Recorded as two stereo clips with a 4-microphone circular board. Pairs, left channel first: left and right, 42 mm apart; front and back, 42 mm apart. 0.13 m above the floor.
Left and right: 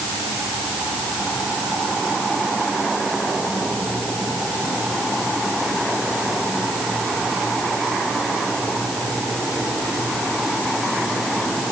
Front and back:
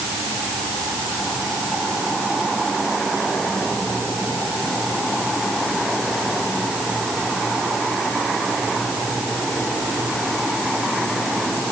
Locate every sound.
Only background noise.